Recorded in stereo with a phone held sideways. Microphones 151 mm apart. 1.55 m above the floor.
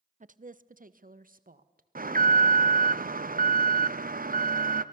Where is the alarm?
65° right (ahead or behind), 0.7 m.